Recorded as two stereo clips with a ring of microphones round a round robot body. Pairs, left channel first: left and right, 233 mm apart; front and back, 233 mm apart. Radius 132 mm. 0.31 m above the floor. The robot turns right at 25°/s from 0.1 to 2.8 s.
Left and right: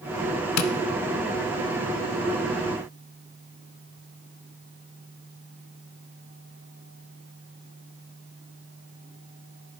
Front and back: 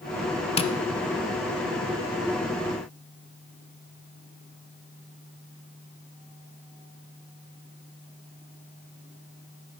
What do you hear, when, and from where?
0.6 s tapping: 65° left, 0.5 m; by 0.7 s 70° left, 0.5 m